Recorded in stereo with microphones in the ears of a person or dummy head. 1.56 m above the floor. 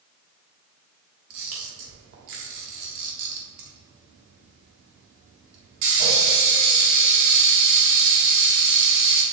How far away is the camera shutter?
About 1.7 m.